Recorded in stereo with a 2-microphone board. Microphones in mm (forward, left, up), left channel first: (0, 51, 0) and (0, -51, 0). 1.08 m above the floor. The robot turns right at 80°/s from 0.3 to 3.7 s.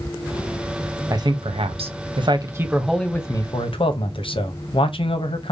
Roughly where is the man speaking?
Behind right.